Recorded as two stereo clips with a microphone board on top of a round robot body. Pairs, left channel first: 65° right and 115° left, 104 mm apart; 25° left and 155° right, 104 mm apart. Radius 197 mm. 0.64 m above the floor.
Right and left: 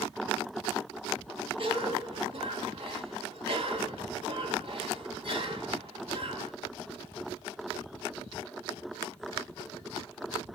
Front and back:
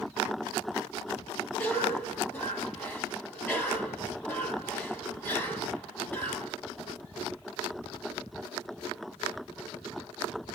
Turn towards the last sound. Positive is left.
turn(degrees=95)